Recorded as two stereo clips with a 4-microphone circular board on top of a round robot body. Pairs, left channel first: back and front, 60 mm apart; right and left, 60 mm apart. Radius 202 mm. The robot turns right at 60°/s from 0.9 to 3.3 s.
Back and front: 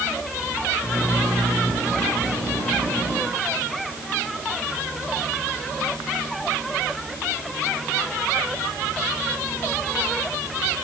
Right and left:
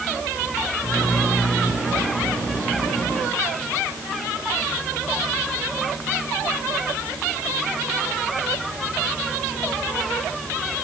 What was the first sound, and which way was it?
Only background noise.